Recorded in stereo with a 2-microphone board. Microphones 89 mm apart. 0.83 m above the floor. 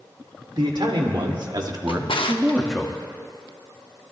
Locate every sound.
0.6 s a man speaking: 75° right (ahead or behind), 3 m; by 2.9 s 10° left (ahead or behind), 1.5 m
1.9 s a drawer: 90° left, 0.8 m